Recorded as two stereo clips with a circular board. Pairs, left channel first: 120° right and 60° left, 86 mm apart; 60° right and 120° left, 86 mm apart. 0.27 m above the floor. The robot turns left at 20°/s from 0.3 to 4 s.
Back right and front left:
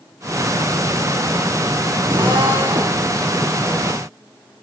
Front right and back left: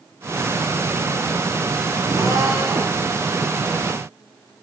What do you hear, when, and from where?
2.1 s a drill: 80° left, 6.5 m; by 3.0 s 60° left, 6.5 m